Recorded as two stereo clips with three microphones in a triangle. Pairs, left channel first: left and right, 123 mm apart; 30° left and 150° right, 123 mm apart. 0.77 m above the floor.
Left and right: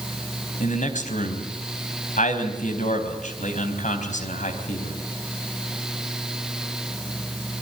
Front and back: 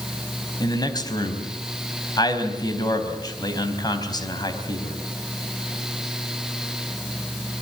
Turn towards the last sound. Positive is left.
turn(degrees=90)